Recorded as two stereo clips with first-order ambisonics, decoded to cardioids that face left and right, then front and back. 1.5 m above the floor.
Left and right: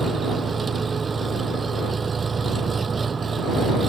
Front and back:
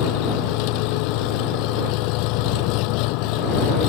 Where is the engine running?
20° right.